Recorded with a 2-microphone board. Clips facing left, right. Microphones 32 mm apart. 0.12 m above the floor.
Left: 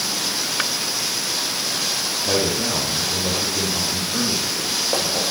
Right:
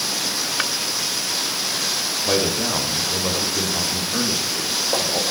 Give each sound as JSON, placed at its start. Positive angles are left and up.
{"t": 2.2, "sound": "a man speaking", "side_deg": -10, "distance_m": 8.0}